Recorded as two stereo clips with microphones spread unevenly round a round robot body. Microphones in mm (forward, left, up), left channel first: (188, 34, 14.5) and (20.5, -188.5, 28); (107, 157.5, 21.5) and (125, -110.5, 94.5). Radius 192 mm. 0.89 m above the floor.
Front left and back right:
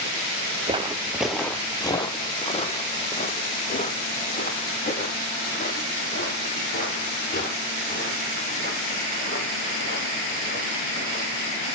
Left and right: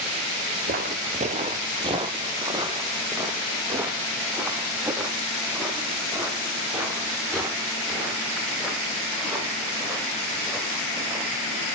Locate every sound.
0.7 s footsteps: 70° right, 1.2 m; by 11.4 s straight ahead, 10.5 m